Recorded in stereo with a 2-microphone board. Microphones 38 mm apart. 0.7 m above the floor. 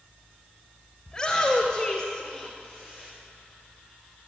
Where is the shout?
15° left (ahead or behind), 2.5 m; by 3.1 s 25° right (ahead or behind), 1.7 m.